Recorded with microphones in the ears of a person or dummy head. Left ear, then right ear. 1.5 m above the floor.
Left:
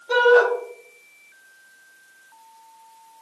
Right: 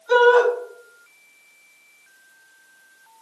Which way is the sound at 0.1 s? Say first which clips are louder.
Right 1 dB; 60° right (ahead or behind).